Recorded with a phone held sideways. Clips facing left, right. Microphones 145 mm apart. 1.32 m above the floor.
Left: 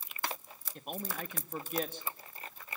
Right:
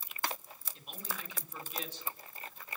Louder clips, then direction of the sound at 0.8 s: Left 7 dB; 50° left (ahead or behind).